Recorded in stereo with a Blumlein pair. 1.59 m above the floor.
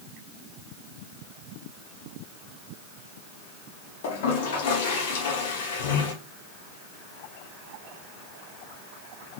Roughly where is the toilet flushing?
Ahead left.